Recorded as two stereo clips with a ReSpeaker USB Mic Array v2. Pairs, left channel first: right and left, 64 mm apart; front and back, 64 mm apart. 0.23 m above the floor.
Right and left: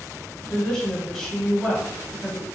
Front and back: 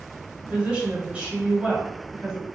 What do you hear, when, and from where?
0.4 s a woman speaking: 150° right, 1.3 m